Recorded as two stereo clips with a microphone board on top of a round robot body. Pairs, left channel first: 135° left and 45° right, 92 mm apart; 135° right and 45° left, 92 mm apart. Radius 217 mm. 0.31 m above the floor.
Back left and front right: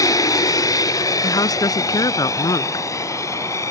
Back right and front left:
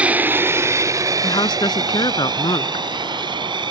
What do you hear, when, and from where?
0.0 s an aircraft: 115° left; by 3.7 s 80° left
1.2 s a woman speaking: 175° right